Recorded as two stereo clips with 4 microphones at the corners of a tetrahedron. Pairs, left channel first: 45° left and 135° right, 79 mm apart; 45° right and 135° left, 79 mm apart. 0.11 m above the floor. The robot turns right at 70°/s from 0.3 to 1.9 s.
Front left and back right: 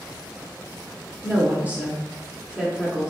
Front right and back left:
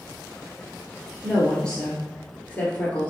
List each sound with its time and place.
1.2 s a woman speaking: 130° right, 1.4 m; by 3.1 s 85° right, 1.4 m